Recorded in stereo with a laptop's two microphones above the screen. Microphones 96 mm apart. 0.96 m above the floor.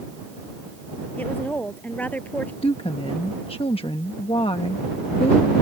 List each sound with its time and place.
1.2 s a woman speaking: 15° left (ahead or behind)
2.6 s a woman speaking: 65° left (ahead or behind)